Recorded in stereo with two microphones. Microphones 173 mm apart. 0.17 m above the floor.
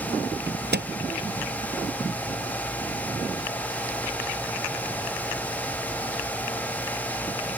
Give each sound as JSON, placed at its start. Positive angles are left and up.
{"t": 0.5, "sound": "a microwave", "side_deg": -70}